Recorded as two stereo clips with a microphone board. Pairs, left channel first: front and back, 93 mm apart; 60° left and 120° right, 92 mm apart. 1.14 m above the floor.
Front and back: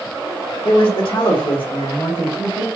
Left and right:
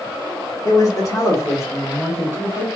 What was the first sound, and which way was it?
A man speaking, 15° left.